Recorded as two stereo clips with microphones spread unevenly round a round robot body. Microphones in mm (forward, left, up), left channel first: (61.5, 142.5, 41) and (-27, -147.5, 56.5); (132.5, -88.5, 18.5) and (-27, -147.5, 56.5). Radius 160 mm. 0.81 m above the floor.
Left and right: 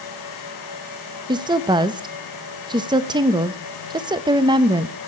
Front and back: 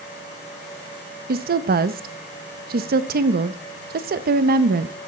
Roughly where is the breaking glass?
No breaking glass in this recording.